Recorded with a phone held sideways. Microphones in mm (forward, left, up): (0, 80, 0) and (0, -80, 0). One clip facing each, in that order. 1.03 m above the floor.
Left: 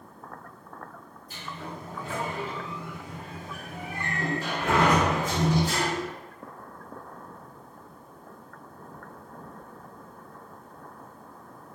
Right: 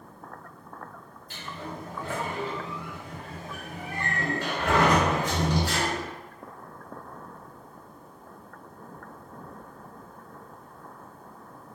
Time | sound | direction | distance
1.3 | a sliding door | 75° right (ahead or behind) | 1.5 m